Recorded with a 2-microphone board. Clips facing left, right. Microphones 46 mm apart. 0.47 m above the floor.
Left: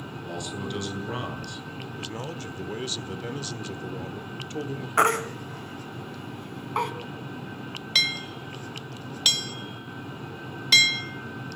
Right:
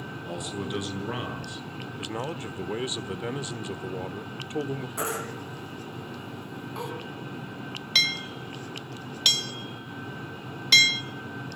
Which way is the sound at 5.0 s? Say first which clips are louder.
Left 14 dB; 60° left (ahead or behind).